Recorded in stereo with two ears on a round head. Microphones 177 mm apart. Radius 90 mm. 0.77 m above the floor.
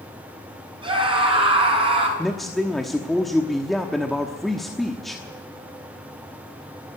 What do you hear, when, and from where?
0.8 s a scream: 25° right (ahead or behind), 6.5 m; by 2.1 s 30° right (ahead or behind), 7.5 m
2.2 s a man speaking: centre (ahead or behind), 1.0 m